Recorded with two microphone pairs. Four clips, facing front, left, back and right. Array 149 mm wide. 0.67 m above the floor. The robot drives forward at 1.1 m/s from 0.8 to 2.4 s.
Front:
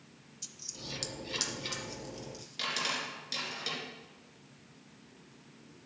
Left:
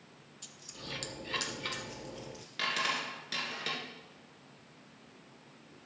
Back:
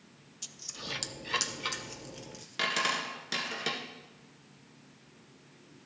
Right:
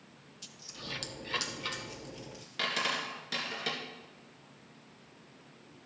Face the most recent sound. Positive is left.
turn(degrees=180)